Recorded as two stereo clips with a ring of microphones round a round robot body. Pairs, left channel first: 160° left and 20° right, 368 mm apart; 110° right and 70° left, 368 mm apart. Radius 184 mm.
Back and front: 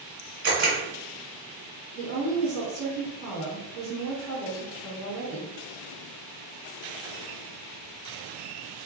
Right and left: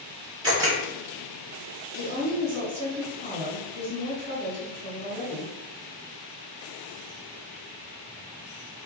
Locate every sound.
0.4 s a camera shutter: 10° right, 1.6 m
1.9 s a woman speaking: 55° left, 1.8 m